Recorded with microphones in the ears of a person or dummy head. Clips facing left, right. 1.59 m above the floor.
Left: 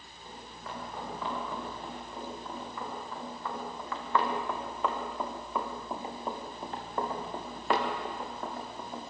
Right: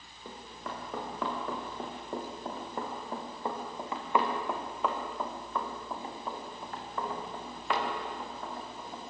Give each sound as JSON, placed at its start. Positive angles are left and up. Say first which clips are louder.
{"t": 0.2, "sound": "running footsteps", "louder": "right 2 dB", "side_deg": -60, "distance_m": 8.5}